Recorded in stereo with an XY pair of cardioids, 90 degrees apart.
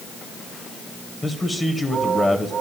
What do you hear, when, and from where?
1.2 s a man speaking: 15° left, 1.3 m